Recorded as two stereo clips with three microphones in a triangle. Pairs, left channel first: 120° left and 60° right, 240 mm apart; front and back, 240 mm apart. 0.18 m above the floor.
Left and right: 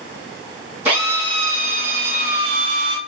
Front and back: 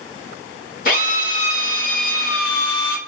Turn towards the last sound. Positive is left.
turn(degrees=20)